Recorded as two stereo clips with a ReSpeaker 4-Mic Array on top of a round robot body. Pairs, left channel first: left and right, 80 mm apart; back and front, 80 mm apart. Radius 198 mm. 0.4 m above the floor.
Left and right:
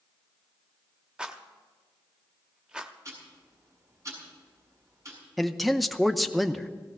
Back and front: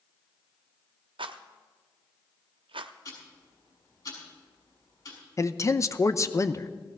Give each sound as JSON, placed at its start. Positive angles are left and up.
{"t": 1.2, "sound": "a rattle", "azimuth_deg": -10, "distance_m": 0.5}
{"t": 3.0, "sound": "ticking", "azimuth_deg": -140, "distance_m": 6.5}
{"t": 5.4, "sound": "a man speaking", "azimuth_deg": 180, "distance_m": 0.8}